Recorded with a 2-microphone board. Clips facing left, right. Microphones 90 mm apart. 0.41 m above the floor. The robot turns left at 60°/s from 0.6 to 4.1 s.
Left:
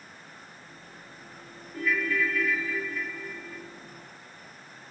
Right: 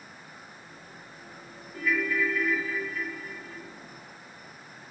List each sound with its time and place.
1.7 s a ringtone: 10° left, 2.5 m; by 3.6 s 100° right, 2.5 m